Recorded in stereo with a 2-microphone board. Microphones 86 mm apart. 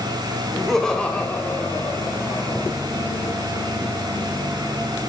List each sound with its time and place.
0.5 s laughter: centre (ahead or behind), 1.5 m; by 2.7 s 50° left (ahead or behind), 1.9 m